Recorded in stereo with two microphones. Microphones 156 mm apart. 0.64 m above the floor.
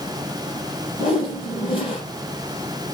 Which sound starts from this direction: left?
A whoosh, at 1.0 s.